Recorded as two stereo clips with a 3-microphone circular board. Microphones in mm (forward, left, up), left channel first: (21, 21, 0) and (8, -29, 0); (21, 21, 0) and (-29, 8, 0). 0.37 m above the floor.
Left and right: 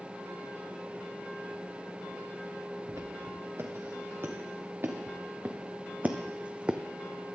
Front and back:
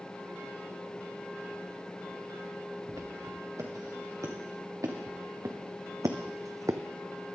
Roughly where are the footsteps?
Behind right.